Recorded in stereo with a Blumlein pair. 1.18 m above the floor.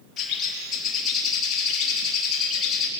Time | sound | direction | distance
0.2 | a bird | 30° left | 3 m